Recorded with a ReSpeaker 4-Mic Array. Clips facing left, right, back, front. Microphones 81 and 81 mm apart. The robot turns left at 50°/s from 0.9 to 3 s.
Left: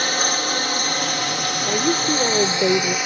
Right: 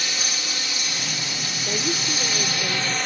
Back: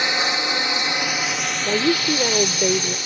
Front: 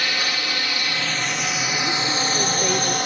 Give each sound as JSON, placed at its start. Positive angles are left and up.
{"t": 0.0, "sound": "a drone", "azimuth_deg": 115}
{"t": 1.6, "sound": "a woman speaking", "azimuth_deg": 165}